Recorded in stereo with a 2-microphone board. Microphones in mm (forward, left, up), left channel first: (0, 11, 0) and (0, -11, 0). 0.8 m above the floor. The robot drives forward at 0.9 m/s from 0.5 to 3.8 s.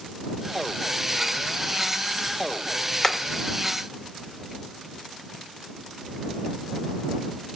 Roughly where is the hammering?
Centre.